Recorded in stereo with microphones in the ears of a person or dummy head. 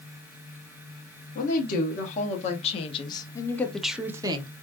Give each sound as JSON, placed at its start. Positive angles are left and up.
{"t": 1.4, "sound": "a woman speaking", "side_deg": 50, "distance_m": 1.6}